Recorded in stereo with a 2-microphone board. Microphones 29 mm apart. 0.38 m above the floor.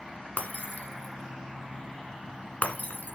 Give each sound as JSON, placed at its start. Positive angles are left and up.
{"t": 0.4, "sound": "breaking glass", "side_deg": 80, "distance_m": 1.4}